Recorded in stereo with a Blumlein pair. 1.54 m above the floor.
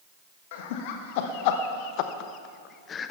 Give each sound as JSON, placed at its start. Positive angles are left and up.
{"t": 0.5, "sound": "laughter", "azimuth_deg": 50, "distance_m": 1.8}